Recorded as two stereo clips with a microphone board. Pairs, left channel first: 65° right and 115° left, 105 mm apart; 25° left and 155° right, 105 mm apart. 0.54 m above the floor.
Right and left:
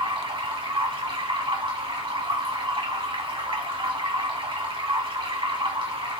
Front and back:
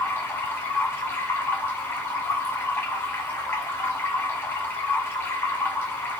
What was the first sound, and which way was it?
Running water, 90° left.